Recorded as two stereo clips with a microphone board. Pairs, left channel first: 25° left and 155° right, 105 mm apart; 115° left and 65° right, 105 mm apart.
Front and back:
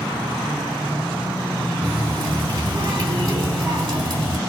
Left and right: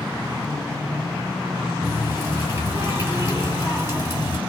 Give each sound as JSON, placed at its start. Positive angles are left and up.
{"t": 1.8, "sound": "a running tap", "azimuth_deg": -135, "distance_m": 2.5}